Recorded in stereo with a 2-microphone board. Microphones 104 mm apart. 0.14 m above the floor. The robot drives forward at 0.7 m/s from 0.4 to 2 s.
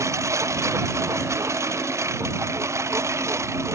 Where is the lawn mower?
30° right (ahead or behind).